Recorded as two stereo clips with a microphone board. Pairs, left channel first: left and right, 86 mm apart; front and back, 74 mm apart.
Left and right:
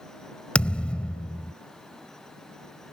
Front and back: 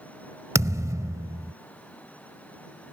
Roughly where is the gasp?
No gasp in this recording.